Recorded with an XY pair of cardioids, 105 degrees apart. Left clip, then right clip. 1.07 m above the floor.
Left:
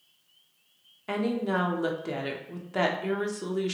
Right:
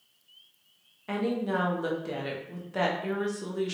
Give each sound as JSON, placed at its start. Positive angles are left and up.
{"t": 1.1, "sound": "a woman speaking", "azimuth_deg": 20, "distance_m": 0.7}